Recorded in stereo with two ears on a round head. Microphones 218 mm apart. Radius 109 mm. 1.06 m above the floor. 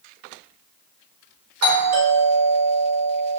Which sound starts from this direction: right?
A doorbell, at 1.6 s.